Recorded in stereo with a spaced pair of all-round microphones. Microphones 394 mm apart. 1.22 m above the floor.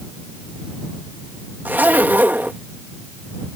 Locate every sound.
1.6 s a zipper: 5° right (ahead or behind)